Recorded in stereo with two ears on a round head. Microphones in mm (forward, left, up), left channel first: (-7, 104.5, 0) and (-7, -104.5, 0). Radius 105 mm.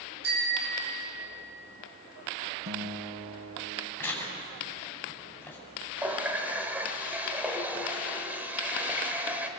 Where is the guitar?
45° right (ahead or behind), 3 m.